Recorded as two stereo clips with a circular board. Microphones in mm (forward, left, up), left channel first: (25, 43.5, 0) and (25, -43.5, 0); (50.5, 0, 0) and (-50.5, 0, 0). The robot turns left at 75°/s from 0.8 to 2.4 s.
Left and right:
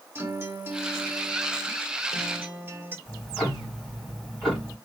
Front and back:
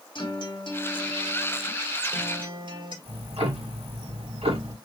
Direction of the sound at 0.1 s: 30° right.